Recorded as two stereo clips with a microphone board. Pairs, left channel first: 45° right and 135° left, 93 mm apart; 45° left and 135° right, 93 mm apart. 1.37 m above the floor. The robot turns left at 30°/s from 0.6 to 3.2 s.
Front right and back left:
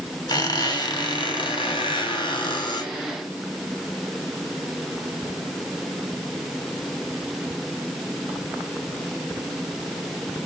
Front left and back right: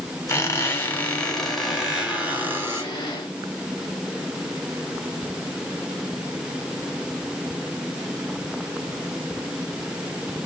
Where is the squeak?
10° right, 2.5 m; by 2.9 s 80° right, 2.5 m.